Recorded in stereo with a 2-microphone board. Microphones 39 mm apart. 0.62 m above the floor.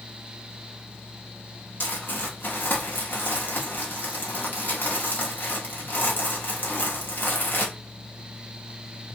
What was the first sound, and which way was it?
Crumpling, 60° left (ahead or behind).